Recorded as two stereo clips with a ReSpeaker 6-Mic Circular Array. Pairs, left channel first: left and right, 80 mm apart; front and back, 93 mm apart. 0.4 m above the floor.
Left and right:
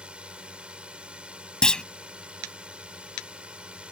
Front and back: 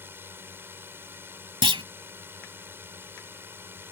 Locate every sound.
0.0 s a drone: 150° right
1.6 s a clunk: 170° left